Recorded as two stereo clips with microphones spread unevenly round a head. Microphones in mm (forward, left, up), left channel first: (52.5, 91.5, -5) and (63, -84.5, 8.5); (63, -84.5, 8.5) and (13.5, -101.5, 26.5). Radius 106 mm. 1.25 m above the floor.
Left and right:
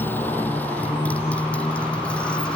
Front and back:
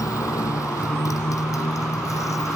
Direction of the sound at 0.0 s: 15° left.